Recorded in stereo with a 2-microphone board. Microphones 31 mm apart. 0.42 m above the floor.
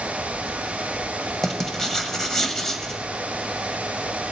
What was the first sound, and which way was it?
Writing, 10° left (ahead or behind).